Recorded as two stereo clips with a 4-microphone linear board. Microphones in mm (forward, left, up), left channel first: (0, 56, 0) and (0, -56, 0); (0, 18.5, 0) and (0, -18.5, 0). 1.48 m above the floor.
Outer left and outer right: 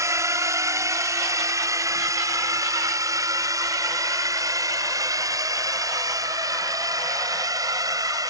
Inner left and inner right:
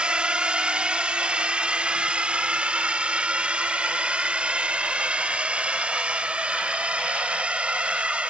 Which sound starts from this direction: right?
A drone, at 0.0 s.